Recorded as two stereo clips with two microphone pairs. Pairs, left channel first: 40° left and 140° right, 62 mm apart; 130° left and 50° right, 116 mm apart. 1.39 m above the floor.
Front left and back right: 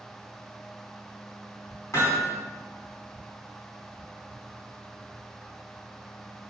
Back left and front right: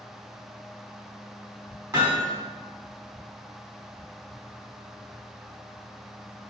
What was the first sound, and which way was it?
Hammering, 5° left.